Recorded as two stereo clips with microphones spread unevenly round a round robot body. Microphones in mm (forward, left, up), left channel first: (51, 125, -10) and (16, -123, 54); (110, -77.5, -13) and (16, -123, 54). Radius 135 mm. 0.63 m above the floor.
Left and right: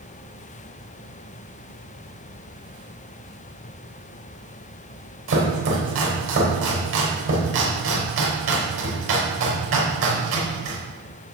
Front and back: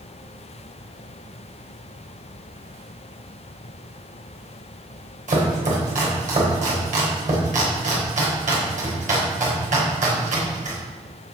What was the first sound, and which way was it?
Chopping, 145° right.